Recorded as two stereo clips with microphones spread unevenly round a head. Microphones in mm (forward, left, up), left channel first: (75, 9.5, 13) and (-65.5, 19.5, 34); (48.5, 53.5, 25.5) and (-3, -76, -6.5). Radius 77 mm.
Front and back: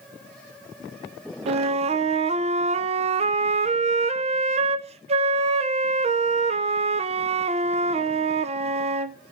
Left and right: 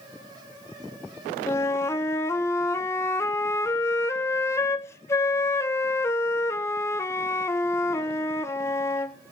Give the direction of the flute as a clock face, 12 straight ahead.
7 o'clock.